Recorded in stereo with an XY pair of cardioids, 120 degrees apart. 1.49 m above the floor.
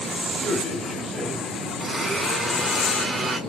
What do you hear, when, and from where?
0.4 s a man speaking: 40° right, 1.3 m
1.8 s a blender: 35° right, 1.1 m